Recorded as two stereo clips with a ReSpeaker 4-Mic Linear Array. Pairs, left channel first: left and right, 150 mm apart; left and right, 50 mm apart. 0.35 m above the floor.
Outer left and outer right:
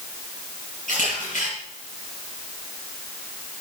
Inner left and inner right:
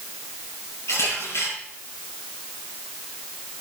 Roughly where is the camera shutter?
Left.